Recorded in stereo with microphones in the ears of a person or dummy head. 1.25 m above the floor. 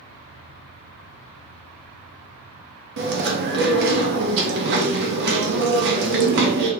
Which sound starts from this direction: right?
Chewing, at 3.0 s.